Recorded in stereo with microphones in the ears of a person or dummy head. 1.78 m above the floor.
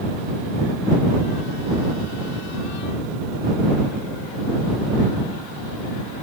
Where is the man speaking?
I don't hear a man speaking.